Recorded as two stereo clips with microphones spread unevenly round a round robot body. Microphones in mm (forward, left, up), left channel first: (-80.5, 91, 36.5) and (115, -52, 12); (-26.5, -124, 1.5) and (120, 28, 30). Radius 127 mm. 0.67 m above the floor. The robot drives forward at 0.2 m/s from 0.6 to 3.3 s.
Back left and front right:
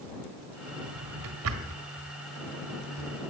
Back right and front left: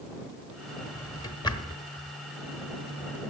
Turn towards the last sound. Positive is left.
turn(degrees=-80)